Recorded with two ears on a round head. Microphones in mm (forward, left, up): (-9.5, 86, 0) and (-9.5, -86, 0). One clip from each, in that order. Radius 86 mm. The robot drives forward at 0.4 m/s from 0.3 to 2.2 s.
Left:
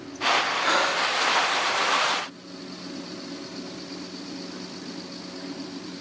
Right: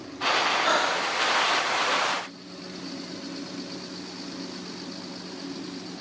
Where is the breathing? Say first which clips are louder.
Left 1 dB; 10° right (ahead or behind), 2.5 m.